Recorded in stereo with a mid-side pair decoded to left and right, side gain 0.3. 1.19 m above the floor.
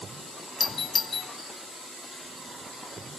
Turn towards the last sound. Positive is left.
turn(degrees=55)